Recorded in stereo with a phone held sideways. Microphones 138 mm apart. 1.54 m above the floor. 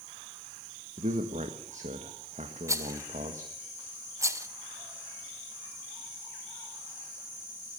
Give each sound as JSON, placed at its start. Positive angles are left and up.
{"t": 1.0, "sound": "a man speaking", "side_deg": -60, "distance_m": 1.7}
{"t": 2.7, "sound": "a rattle", "side_deg": -20, "distance_m": 1.0}